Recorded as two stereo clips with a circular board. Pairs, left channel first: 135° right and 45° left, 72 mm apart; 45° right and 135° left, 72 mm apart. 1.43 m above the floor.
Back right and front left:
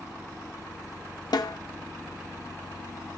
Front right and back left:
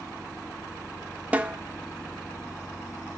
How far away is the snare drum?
About 0.6 m.